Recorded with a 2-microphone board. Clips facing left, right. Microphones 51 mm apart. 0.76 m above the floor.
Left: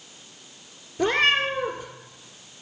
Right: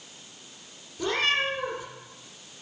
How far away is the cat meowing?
About 1.5 m.